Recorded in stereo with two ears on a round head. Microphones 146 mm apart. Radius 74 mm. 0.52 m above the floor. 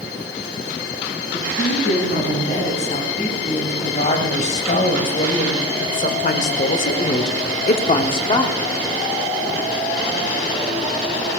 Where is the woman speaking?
40° left (ahead or behind), 5 m; by 8.6 s 25° left (ahead or behind), 1.3 m.